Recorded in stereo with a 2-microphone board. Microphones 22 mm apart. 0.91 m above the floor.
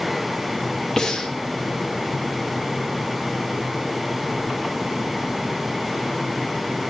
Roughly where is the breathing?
Left.